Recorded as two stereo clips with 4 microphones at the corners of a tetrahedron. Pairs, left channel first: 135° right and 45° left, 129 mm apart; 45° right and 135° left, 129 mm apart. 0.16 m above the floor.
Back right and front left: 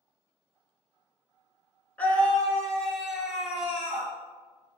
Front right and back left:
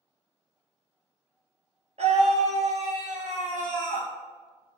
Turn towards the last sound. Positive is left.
turn(degrees=125)